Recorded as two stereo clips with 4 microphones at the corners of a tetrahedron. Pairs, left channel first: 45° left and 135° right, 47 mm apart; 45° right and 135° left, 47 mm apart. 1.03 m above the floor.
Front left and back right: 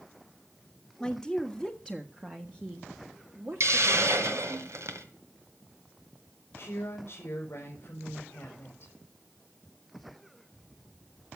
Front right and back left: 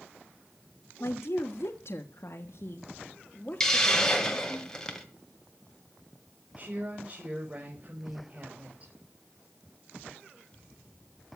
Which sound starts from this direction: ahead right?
A woman speaking, at 1.0 s.